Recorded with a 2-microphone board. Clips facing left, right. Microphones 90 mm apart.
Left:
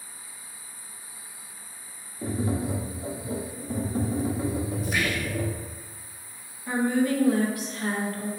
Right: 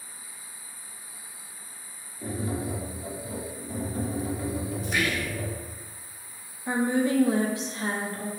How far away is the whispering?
About 0.6 m.